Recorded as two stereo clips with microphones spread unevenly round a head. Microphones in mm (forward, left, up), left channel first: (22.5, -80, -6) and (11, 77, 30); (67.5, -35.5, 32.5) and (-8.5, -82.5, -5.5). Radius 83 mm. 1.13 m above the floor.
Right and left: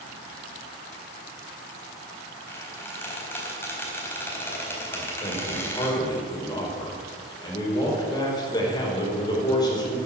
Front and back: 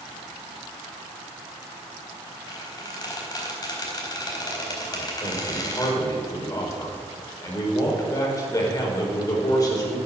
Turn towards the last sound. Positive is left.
turn(degrees=-20)